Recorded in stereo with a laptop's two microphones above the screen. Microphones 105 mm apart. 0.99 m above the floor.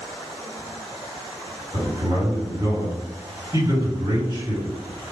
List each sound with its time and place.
1.7 s a man speaking: 45° right (ahead or behind), 1.9 m